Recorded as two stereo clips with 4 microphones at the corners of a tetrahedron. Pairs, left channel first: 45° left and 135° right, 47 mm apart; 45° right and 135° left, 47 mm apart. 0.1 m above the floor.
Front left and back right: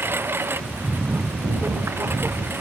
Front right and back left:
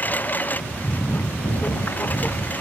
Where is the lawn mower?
100° right.